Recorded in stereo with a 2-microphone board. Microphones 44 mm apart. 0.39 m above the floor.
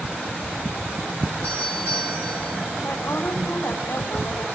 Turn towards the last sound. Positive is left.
turn(degrees=55)  # may be behind; listen again after turning